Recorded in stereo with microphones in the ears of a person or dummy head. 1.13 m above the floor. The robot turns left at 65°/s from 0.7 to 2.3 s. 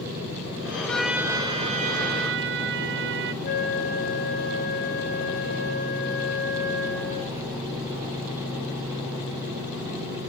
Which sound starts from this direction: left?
A flute, at 3.4 s.